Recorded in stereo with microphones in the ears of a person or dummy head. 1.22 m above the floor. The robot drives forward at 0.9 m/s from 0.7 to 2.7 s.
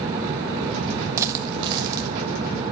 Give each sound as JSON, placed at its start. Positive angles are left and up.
{"t": 1.2, "sound": "a dropped coin", "side_deg": -20, "distance_m": 0.6}